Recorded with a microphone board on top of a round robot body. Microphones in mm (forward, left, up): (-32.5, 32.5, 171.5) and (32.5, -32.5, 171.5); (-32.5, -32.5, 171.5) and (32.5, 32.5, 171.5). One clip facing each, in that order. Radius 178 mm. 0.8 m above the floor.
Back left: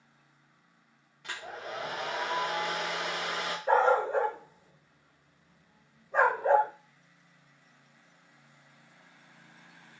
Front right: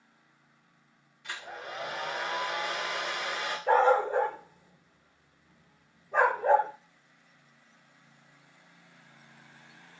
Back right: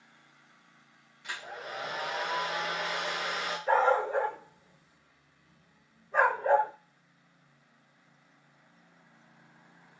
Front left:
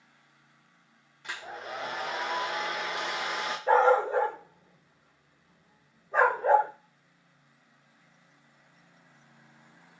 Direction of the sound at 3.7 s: 15° right.